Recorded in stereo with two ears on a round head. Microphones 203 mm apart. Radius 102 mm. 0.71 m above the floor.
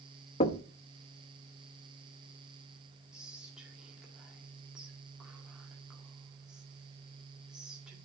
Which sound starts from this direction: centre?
Whispering, at 3.1 s.